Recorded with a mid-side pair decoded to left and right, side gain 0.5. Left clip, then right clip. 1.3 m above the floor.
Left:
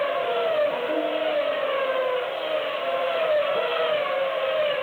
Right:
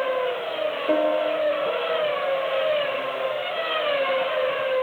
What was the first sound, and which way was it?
A piano, 45° right.